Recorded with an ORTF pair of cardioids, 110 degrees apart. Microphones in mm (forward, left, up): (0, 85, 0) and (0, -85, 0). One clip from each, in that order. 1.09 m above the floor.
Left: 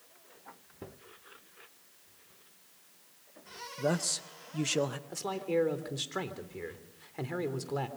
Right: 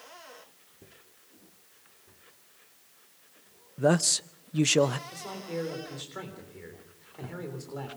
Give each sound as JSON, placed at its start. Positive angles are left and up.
{"t": 3.8, "sound": "a man speaking", "azimuth_deg": -30, "distance_m": 0.6}
{"t": 5.1, "sound": "a man speaking", "azimuth_deg": 40, "distance_m": 3.5}